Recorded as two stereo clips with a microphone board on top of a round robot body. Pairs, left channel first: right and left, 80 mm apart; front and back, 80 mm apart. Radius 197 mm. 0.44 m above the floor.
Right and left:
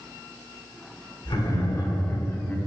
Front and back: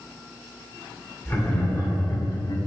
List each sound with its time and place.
1.2 s laughter: 55° right, 3 m; by 2.6 s 20° right, 1.6 m